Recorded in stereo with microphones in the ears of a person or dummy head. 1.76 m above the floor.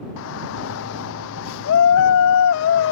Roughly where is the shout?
Left.